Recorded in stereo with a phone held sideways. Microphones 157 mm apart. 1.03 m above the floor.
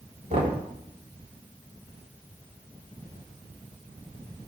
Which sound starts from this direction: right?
Knocking, at 0.3 s.